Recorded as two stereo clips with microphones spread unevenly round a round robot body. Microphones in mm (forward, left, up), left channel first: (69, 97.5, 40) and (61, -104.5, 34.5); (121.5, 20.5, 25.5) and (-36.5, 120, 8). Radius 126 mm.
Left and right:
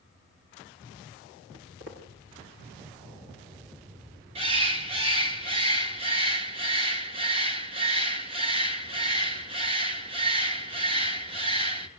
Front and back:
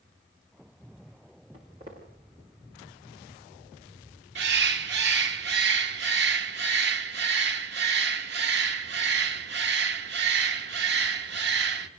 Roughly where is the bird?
Behind.